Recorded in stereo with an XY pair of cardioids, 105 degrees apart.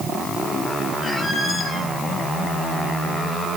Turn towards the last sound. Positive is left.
turn(degrees=30)